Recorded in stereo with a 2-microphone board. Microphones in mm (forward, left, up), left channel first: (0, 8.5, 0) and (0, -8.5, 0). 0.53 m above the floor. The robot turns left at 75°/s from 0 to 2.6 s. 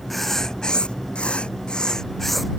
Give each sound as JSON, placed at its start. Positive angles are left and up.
{"t": 0.1, "sound": "writing", "azimuth_deg": 170}